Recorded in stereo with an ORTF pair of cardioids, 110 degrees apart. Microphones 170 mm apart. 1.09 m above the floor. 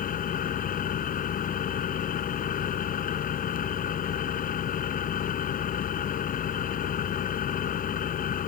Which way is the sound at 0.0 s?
55° left.